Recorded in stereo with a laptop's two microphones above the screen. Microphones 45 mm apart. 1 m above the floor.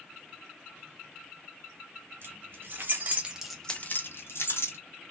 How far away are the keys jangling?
About 1.6 m.